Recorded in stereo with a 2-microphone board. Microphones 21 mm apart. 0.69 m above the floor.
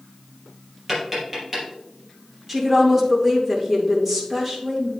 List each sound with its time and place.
0.9 s tapping: 20° right (ahead or behind), 4 m
2.5 s a woman speaking: 15° right (ahead or behind), 2.5 m